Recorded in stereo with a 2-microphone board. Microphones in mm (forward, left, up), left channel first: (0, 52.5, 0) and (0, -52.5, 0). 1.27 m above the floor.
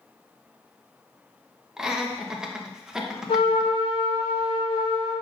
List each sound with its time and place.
1.8 s laughter: 5° right (ahead or behind), 1.1 m
3.3 s a trumpet: 55° left (ahead or behind), 3 m